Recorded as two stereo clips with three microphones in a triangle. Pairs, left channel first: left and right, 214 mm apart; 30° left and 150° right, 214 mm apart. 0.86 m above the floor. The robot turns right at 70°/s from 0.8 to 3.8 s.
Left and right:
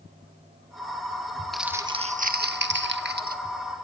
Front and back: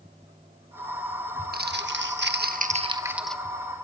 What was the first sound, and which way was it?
Crumpling, straight behind.